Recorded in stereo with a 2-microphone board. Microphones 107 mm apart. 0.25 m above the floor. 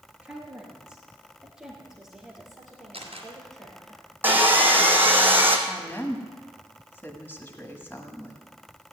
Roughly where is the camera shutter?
Right.